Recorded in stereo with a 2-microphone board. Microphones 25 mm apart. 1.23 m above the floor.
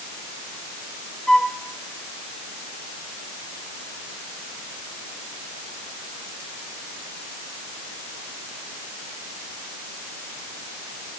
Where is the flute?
20° left (ahead or behind), 1.8 m.